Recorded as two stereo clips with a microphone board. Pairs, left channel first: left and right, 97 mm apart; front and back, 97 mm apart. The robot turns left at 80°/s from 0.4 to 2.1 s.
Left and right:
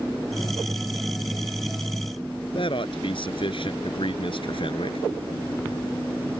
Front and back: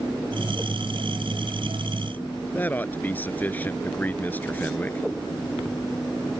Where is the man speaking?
70° left.